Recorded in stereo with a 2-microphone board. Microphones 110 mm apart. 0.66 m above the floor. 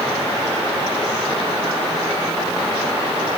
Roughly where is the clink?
I don't hear a clink.